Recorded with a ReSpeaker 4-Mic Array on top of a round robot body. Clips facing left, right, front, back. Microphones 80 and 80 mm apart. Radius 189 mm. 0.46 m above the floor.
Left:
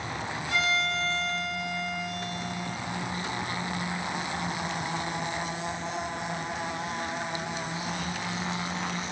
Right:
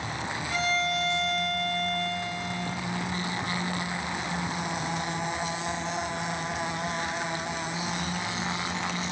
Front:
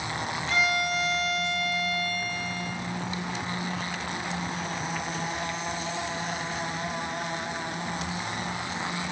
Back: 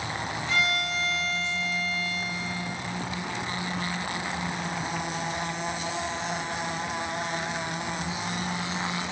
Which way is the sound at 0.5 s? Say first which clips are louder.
Even, front 2 dB; 120° left.